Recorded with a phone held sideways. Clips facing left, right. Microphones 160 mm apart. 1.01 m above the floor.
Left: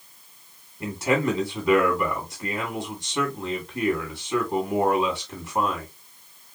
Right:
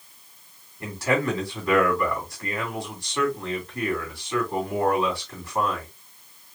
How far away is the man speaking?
About 2.5 m.